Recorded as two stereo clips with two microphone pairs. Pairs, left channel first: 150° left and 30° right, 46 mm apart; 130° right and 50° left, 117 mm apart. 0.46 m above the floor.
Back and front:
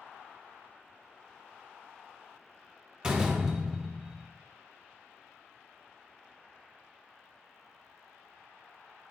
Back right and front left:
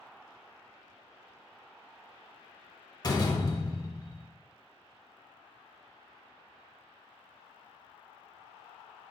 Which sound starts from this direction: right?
A door slam, at 3.0 s.